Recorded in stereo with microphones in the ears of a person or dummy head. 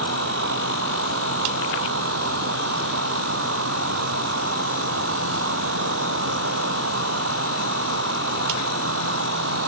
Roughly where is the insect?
Right.